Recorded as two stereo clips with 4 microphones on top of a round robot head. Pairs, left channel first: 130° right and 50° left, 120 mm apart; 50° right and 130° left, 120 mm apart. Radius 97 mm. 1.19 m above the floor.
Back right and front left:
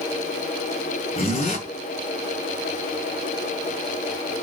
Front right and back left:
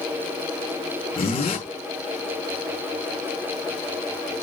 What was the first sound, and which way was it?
A zipper, 95° right.